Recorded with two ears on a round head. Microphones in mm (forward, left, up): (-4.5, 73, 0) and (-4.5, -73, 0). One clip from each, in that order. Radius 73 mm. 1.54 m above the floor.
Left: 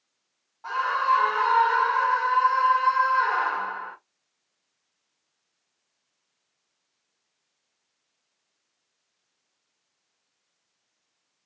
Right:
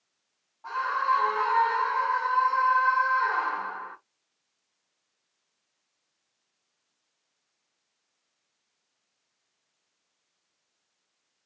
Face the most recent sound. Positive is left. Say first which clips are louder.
# left 3 dB
turn(degrees=55)  # may be behind; listen again after turning